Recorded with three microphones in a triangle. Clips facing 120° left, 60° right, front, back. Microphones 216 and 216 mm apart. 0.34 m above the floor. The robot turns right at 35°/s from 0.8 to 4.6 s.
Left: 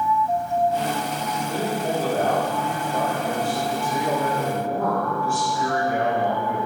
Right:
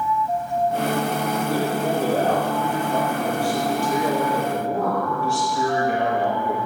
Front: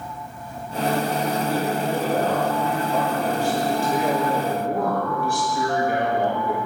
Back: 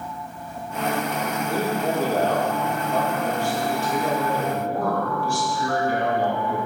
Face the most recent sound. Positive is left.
turn(degrees=-35)